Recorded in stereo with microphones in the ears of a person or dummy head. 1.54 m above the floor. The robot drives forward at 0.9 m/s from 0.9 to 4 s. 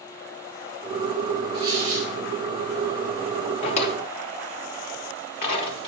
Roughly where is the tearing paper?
Right.